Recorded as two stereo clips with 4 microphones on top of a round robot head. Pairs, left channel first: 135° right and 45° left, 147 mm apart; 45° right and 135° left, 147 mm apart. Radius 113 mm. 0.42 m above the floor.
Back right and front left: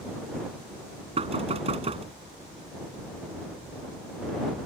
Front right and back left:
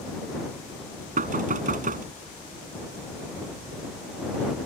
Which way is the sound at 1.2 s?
100° left.